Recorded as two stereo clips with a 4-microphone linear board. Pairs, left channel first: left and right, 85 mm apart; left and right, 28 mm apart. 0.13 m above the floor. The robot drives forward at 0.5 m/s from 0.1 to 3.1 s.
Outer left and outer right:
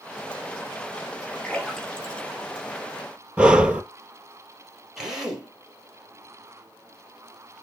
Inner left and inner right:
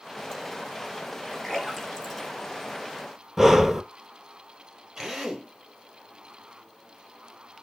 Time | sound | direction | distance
1.4 | a splash | 10° left (ahead or behind) | 3 m
3.4 | breathing | 10° right (ahead or behind) | 0.7 m
5.0 | a drill | 10° right (ahead or behind) | 3 m